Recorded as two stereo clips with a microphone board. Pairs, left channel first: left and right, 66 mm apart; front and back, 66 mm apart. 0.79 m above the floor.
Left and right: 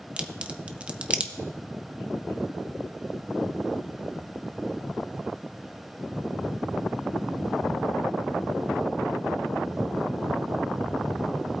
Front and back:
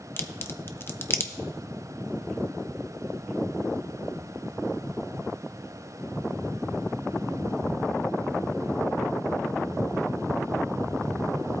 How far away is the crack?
About 0.7 m.